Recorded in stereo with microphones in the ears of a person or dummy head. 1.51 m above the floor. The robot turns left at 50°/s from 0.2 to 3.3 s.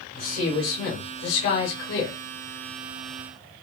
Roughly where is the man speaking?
Behind left.